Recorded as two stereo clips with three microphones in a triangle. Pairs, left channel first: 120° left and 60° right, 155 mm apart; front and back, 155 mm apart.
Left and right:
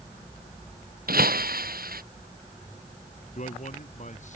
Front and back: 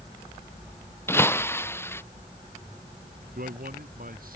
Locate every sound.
1.1 s breaking glass: 75° right
3.4 s a man speaking: 160° left